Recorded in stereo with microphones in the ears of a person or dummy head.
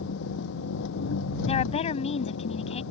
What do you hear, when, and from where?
0.0 s an engine running: 70° left (ahead or behind)
1.5 s a woman speaking: 40° left (ahead or behind)